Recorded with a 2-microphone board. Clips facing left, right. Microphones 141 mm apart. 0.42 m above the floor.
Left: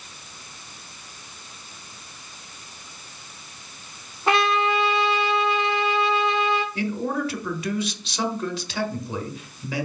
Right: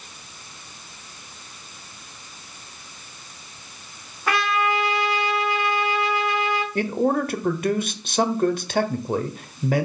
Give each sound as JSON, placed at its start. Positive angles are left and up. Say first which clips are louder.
{"t": 4.3, "sound": "a trumpet", "louder": "left 2 dB", "side_deg": 25, "distance_m": 1.4}
{"t": 6.8, "sound": "a man speaking", "louder": "right 5 dB", "side_deg": -50, "distance_m": 1.1}